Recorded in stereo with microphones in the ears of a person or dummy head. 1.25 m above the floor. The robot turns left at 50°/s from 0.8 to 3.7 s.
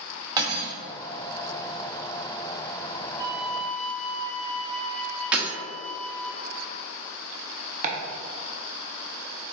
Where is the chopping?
35° right (ahead or behind), 0.6 m.